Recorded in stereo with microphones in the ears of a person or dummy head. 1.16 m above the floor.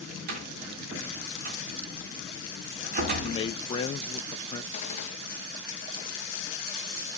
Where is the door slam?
50° right (ahead or behind), 1.9 m.